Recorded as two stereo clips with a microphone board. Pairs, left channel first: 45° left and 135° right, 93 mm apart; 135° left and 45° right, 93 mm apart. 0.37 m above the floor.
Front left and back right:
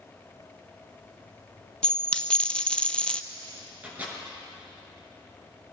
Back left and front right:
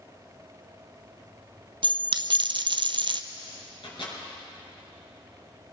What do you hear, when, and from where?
1.8 s a dropped coin: 30° right, 0.7 m
3.8 s a microwave: 155° left, 4.5 m